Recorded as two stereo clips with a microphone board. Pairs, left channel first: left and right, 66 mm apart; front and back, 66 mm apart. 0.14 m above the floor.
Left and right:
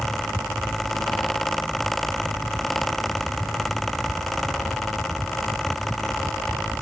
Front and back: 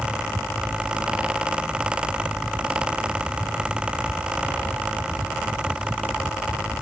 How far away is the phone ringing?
No phone ringing in this recording.